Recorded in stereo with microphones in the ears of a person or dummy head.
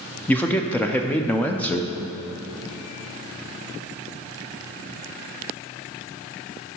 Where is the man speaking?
5° left (ahead or behind), 0.6 m.